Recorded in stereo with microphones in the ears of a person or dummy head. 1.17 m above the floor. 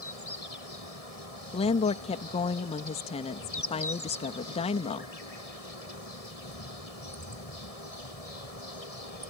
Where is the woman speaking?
30° left (ahead or behind).